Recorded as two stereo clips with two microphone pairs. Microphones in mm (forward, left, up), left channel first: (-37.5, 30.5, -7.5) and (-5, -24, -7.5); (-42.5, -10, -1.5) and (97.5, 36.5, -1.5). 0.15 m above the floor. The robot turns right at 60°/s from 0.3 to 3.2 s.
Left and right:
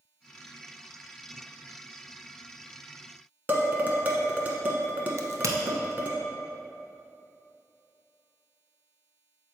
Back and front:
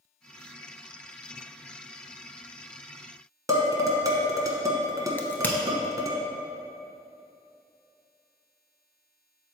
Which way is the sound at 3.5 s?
20° right.